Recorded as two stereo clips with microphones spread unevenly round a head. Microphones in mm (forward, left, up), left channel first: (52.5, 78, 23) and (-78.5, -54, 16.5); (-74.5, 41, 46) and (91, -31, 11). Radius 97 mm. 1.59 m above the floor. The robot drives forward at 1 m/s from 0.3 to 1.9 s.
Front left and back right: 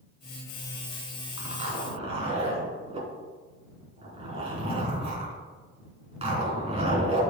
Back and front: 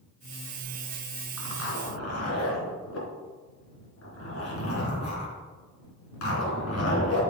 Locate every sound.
1.4 s a zipper: 165° left, 3 m